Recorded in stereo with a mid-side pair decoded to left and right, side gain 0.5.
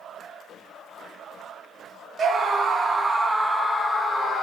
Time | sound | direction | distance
2.2 | a scream | 45° right | 1.1 m